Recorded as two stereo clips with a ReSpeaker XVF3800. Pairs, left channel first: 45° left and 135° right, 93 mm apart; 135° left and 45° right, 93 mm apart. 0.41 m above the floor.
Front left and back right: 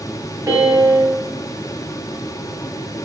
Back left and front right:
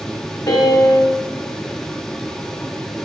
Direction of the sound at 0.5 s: 175° left.